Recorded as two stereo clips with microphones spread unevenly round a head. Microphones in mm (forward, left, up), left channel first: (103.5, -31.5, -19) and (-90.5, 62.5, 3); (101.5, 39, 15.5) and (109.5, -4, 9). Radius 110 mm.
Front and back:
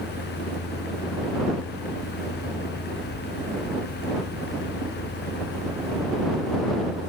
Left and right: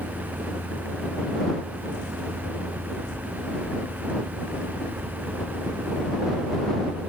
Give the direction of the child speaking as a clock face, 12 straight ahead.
No child speaking in this recording.